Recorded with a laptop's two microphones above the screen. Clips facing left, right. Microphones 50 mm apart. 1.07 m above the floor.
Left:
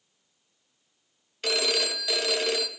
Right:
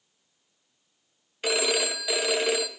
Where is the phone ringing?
15° right (ahead or behind), 0.7 m.